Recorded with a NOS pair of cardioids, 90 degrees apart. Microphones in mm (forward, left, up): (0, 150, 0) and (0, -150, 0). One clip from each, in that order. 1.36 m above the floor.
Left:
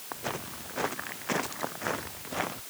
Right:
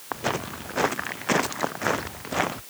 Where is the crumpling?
No crumpling in this recording.